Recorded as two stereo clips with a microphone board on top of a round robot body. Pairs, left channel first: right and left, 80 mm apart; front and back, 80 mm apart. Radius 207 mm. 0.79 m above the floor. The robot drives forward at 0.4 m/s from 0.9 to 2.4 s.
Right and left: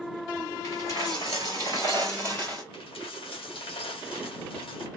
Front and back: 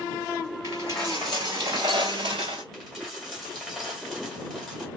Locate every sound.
0.6 s a dropped coin: 45° right, 0.7 m; by 2.6 s 160° right, 0.8 m
2.7 s a dropped coin: 85° right, 2 m